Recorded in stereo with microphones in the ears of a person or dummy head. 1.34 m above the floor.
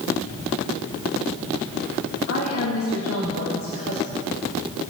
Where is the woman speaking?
80° left, 6 m.